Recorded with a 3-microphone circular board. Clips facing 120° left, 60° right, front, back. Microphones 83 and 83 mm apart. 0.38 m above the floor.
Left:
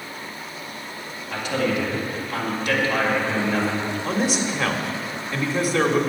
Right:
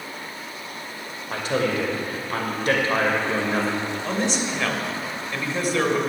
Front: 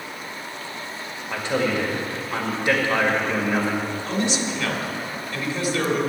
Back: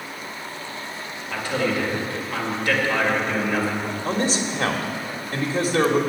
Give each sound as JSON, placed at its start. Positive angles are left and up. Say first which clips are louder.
{"t": 1.3, "sound": "a man speaking", "louder": "even, front 1 dB", "azimuth_deg": -55, "distance_m": 1.8}
{"t": 4.0, "sound": "a man speaking", "louder": "left 2 dB, back 3 dB", "azimuth_deg": -155, "distance_m": 1.3}